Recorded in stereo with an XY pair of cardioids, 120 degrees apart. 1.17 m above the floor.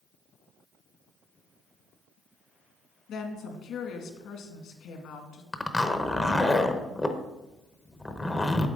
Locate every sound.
3.1 s a woman speaking: 65° left, 2 m
5.5 s a zipper: 10° left, 0.8 m